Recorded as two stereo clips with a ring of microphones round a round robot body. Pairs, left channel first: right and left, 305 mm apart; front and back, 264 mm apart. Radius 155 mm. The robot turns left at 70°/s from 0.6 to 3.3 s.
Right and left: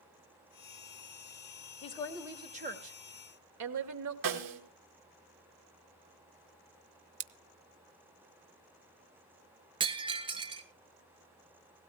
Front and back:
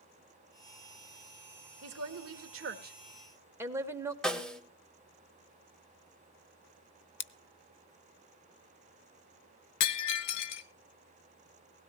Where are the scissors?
45° left, 0.8 m.